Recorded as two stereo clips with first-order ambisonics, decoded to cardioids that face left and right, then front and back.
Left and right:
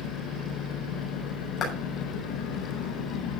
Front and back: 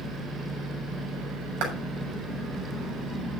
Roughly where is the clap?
Behind left.